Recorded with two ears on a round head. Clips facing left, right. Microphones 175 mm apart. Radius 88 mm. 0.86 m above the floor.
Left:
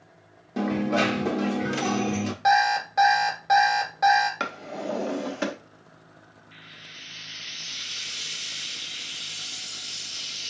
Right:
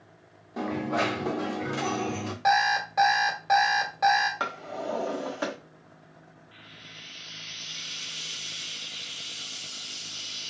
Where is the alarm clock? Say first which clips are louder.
Left 2 dB; 5° left (ahead or behind), 1.6 m.